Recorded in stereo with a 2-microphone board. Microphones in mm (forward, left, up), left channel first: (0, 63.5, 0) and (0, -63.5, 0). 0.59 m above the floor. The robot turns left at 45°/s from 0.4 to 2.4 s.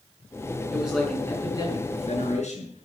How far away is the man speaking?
About 6.5 m.